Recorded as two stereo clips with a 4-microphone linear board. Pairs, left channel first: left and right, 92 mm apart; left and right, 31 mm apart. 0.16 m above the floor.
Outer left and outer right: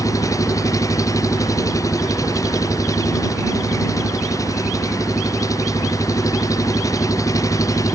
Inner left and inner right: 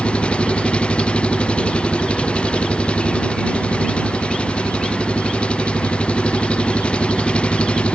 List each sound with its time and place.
0.0 s an engine running: 35° left (ahead or behind)